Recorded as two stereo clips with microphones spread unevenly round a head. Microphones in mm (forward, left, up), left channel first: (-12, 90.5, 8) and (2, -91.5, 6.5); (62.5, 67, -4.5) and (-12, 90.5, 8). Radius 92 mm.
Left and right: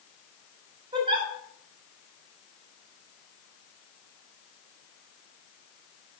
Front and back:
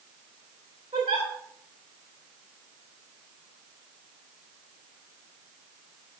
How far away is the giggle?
About 4 m.